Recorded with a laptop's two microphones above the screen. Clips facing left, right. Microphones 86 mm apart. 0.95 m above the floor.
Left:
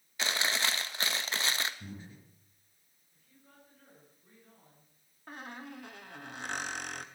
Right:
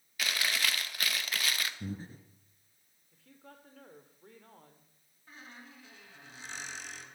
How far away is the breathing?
About 2 m.